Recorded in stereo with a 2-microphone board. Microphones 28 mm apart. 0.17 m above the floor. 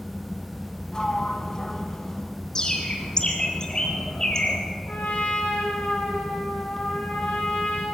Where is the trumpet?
50° left (ahead or behind), 6.5 m.